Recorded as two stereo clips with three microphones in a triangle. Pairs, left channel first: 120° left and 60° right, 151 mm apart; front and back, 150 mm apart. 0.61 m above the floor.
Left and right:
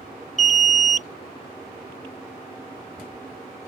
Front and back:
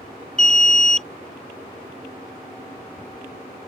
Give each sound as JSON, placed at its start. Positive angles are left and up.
{"t": 0.4, "sound": "an alarm", "azimuth_deg": 85}